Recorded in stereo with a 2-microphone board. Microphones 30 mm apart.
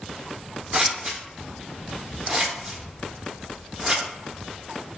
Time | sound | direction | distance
0.7 | scissors | 20° right (ahead or behind) | 0.5 m